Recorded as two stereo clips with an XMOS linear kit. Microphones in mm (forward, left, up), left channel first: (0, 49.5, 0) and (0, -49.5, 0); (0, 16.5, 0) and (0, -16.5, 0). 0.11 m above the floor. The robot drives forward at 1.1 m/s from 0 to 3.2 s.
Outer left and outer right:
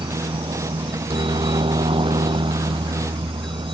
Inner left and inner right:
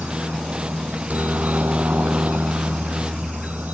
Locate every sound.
0.0 s a helicopter: 70° right (ahead or behind); by 3.7 s 65° right (ahead or behind)